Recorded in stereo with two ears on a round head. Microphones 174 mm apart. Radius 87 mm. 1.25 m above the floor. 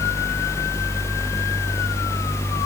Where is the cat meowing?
I don't hear a cat meowing.